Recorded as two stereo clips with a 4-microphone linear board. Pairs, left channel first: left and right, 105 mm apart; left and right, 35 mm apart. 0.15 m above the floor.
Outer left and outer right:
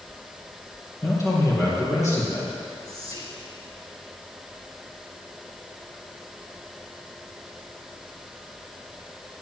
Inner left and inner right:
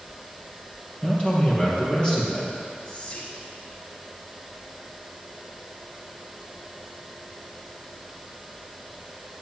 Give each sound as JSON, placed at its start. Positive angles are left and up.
{"t": 1.0, "sound": "a man speaking", "side_deg": 30, "distance_m": 3.5}
{"t": 2.9, "sound": "whispering", "side_deg": 35, "distance_m": 3.0}